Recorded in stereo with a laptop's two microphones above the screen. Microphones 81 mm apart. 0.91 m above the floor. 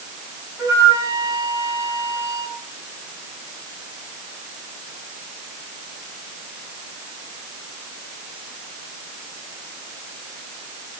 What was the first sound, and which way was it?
A flute, 45° right (ahead or behind).